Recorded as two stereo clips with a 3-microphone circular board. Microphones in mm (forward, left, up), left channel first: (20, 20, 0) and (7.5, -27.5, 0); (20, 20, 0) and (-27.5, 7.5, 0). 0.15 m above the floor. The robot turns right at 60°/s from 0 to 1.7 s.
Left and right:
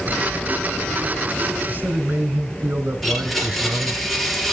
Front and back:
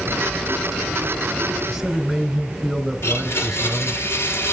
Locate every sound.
1.7 s a man speaking: 85° right, 2 m
3.0 s a blender: 10° right, 3 m